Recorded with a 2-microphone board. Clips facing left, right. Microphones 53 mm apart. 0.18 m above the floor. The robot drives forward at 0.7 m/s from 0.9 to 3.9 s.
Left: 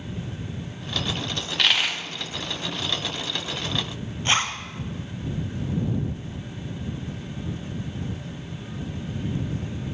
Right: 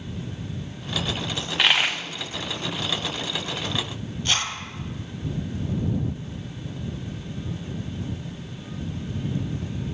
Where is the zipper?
35° left (ahead or behind), 0.9 m.